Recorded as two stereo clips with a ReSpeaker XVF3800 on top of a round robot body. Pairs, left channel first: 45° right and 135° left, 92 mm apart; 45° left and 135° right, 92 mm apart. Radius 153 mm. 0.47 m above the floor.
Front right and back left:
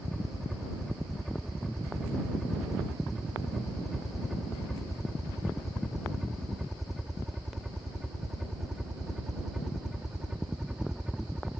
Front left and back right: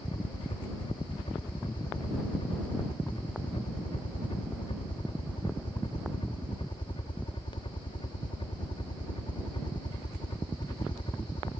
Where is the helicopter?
45° left; by 11.6 s 55° left.